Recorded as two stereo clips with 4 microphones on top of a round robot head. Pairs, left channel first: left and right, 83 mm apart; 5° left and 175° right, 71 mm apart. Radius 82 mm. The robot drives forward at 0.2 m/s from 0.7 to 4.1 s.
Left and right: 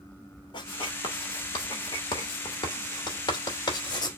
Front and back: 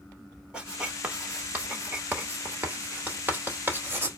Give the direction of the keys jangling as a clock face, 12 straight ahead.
No keys jangling in this recording.